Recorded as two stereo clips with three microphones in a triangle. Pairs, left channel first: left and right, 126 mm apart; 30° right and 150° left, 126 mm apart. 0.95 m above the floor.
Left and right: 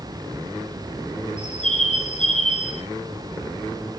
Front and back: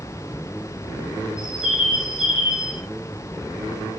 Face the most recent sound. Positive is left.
turn(degrees=70)